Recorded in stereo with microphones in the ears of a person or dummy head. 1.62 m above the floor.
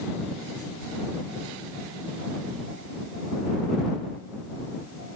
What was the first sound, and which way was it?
Only background noise.